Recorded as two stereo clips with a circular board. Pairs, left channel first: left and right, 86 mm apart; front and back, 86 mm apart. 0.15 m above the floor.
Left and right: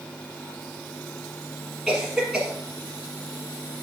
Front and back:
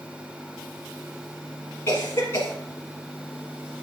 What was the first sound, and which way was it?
A cough, 10° right.